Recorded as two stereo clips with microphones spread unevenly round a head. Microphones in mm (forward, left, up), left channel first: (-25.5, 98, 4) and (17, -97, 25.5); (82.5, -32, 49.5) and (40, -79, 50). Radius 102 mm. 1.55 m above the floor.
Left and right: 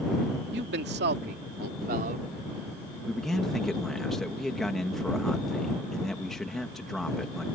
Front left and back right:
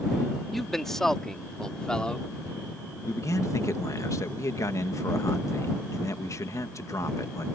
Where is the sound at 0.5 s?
40° right; by 2.3 s 30° right.